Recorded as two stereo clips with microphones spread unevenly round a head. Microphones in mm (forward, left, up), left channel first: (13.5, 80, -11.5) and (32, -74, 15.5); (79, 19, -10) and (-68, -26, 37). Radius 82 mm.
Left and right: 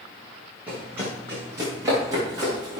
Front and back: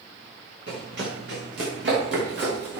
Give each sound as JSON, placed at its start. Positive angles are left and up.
{"t": 0.7, "sound": "running footsteps", "azimuth_deg": -165, "distance_m": 6.5}